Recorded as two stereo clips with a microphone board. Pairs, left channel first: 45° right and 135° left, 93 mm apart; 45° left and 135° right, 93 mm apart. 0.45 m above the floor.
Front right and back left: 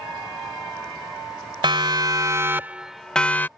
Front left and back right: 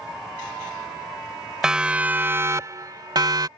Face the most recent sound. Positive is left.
turn(degrees=-110)